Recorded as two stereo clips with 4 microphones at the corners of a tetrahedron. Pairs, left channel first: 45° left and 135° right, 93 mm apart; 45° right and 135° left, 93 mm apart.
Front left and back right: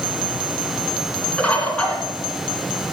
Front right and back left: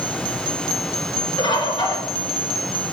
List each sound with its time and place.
1.4 s a bird: 30° right, 2.5 m